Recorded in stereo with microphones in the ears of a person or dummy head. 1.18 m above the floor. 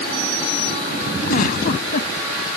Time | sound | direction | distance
1.3 | a giggle | 50° left (ahead or behind) | ?